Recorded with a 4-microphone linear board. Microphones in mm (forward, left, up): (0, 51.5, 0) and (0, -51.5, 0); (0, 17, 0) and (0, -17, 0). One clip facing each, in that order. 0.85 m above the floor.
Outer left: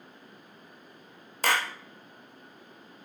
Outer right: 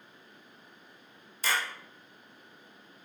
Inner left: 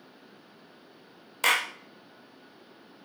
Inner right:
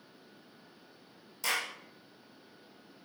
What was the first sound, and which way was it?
A clap, 60° left (ahead or behind).